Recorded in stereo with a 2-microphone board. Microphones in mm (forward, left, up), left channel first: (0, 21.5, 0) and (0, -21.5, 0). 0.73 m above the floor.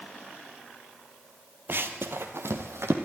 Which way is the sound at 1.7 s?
50° right (ahead or behind).